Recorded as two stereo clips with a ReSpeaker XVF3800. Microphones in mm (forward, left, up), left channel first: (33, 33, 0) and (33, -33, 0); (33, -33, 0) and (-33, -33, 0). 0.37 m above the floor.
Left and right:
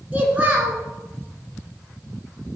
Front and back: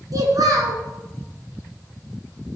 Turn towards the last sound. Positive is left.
turn(degrees=-155)